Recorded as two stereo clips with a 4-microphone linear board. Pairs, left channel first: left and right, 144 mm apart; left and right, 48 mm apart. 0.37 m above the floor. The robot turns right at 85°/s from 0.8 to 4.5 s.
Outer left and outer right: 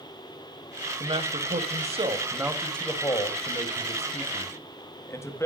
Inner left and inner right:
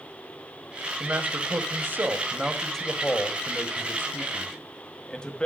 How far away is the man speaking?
About 1.9 m.